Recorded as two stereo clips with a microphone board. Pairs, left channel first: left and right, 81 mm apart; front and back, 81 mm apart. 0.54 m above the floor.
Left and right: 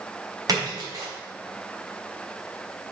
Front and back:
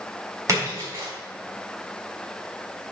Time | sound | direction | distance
0.5 | a splash | 130° right | 4.5 m